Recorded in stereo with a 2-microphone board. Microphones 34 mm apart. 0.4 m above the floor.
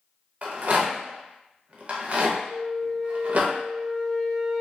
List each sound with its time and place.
0.4 s a rattle: 45° right (ahead or behind), 0.5 m
2.5 s a flute: 15° left (ahead or behind), 1.3 m